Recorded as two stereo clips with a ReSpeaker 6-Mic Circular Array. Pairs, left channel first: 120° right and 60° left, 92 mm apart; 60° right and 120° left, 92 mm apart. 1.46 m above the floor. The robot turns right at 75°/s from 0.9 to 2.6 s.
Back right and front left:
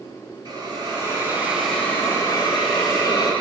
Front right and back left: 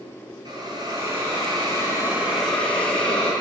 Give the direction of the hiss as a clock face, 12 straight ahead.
9 o'clock.